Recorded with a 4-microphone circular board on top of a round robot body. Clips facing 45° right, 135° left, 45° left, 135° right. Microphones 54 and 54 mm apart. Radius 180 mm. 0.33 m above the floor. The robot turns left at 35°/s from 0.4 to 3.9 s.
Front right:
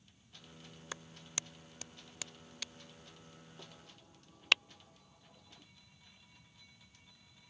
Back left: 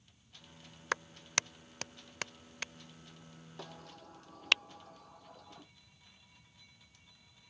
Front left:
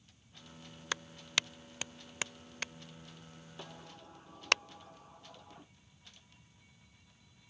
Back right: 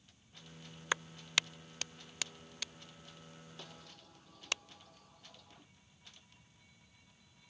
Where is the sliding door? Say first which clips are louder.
Back left 7 dB, front left 8 dB; 120° left; by 5.7 s 105° left.